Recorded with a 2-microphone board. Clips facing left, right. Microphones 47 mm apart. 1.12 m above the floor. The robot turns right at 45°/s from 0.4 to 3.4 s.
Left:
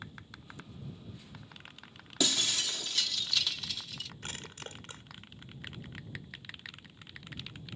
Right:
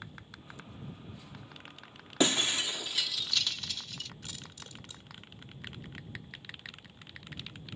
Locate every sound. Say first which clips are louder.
2.2 s breaking glass: right 4 dB; 30° right (ahead or behind); by 4.1 s centre (ahead or behind)
4.2 s crushing: left 4 dB; 45° left (ahead or behind)